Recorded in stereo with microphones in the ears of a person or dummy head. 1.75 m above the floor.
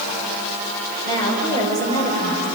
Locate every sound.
1.1 s a woman speaking: 20° left (ahead or behind), 7 m